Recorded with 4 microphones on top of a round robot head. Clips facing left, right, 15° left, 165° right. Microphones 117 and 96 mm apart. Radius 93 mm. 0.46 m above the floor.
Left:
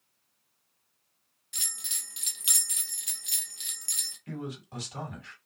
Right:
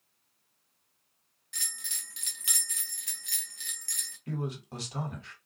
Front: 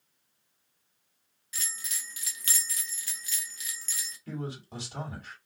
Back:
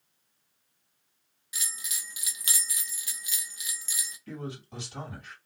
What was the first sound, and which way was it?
A bell, 135° left.